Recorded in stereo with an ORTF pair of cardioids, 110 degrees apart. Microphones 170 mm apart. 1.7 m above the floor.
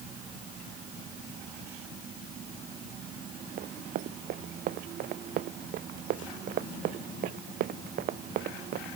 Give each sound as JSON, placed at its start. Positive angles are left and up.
{"t": 3.6, "sound": "running footsteps", "azimuth_deg": -70}